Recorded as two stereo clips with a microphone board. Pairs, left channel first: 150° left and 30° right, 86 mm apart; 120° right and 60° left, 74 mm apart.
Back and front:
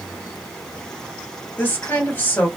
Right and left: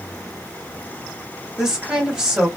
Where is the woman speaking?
125° left, 1.6 m.